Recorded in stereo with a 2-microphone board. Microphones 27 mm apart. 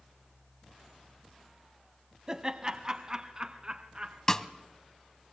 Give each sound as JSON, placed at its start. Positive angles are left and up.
{"t": 2.3, "sound": "laughter", "side_deg": -25, "distance_m": 1.3}
{"t": 4.3, "sound": "a snare drum", "side_deg": 20, "distance_m": 1.0}